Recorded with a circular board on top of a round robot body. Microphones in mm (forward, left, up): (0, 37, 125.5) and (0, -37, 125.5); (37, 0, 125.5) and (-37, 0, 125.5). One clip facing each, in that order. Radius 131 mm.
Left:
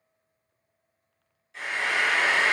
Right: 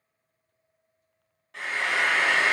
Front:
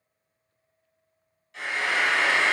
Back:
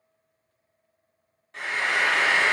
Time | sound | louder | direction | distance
1.5 | frying | even, back 1 dB | 130° right | 0.9 m